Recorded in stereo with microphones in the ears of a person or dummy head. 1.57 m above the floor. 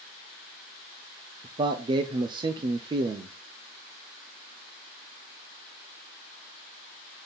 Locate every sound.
1.4 s a man speaking: 20° right (ahead or behind), 0.5 m